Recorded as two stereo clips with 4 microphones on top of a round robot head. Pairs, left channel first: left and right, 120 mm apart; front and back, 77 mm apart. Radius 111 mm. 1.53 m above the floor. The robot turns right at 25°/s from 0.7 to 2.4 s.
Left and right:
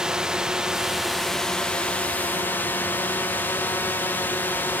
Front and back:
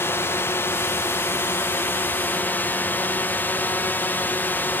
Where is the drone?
10° right; by 4.8 s 35° left.